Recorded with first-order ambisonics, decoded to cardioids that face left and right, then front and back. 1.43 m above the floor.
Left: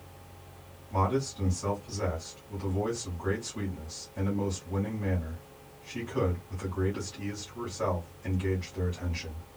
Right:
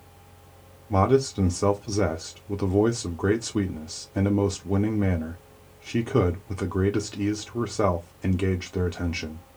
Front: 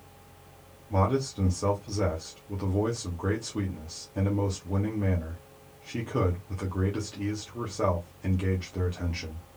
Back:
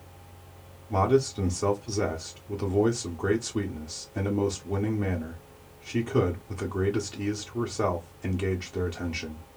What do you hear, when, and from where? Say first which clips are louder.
0.9 s a man speaking: right 8 dB, back 4 dB; 100° right, 0.6 m